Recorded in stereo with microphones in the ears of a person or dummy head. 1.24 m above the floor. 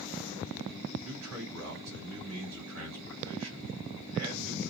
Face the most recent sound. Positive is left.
turn(degrees=-85)